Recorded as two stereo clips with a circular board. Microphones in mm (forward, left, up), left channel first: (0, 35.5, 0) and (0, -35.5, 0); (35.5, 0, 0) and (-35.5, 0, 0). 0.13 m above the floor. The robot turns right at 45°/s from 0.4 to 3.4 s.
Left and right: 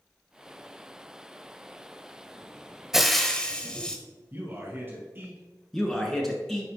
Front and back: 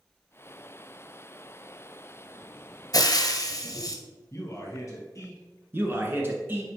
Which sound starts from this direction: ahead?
Frying, at 2.9 s.